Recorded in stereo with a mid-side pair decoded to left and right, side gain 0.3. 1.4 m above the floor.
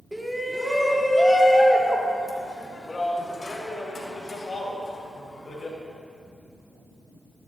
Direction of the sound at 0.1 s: 10° right.